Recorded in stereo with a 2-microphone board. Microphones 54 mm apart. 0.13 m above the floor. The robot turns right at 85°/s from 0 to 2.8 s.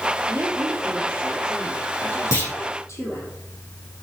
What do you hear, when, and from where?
0.3 s a woman speaking: 105° right, 3.5 m; by 3.3 s 110° left, 3.5 m
2.3 s a clunk: 70° left (ahead or behind), 5 m; by 2.5 s 55° left (ahead or behind), 5 m